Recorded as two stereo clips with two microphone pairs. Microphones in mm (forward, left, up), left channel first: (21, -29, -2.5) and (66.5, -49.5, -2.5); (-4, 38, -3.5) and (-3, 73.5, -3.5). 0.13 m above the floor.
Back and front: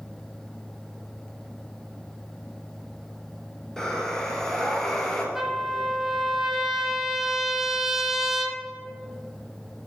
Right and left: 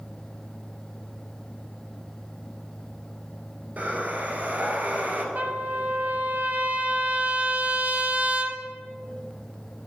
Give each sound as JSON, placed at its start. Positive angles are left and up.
{"t": 3.8, "sound": "breathing", "azimuth_deg": 75, "distance_m": 1.2}
{"t": 5.3, "sound": "a trumpet", "azimuth_deg": 55, "distance_m": 0.6}